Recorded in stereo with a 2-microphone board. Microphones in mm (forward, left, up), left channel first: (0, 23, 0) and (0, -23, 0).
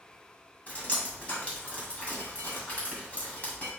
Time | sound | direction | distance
0.7 | dripping | 30° left (ahead or behind) | 1.9 m